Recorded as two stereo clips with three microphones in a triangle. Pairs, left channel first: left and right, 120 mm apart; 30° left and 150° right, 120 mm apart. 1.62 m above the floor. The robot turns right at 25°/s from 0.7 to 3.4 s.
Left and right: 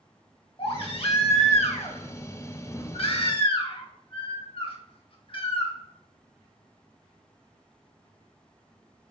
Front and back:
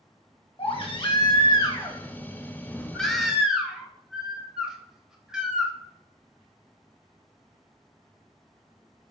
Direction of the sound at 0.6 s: 60° left.